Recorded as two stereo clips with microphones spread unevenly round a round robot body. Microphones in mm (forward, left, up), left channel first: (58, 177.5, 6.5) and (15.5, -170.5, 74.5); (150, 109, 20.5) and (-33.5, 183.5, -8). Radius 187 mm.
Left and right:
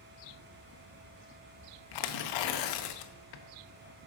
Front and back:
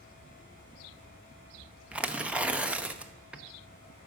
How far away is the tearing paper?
About 0.7 m.